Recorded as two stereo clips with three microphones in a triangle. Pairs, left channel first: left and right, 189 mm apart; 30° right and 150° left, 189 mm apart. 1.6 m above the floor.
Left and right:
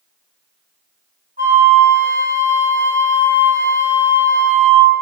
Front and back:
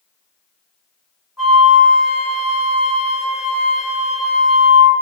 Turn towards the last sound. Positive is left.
turn(degrees=-120)